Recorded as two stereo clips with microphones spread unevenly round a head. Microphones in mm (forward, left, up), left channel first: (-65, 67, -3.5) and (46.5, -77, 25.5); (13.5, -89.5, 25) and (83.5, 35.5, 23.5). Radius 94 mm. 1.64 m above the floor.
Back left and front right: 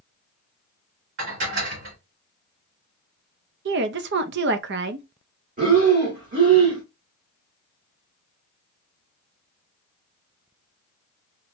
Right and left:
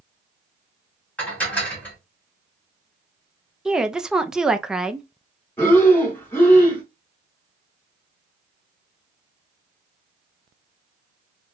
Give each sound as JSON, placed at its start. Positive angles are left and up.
{"t": 1.2, "sound": "dishes clattering", "azimuth_deg": -40, "distance_m": 2.0}
{"t": 3.6, "sound": "a woman speaking", "azimuth_deg": -25, "distance_m": 0.5}
{"t": 5.6, "sound": "breathing", "azimuth_deg": -50, "distance_m": 1.9}